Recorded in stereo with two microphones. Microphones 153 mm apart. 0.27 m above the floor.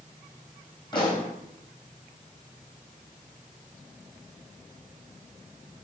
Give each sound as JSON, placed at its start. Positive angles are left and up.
{"t": 0.9, "sound": "a pop", "side_deg": 30, "distance_m": 3.5}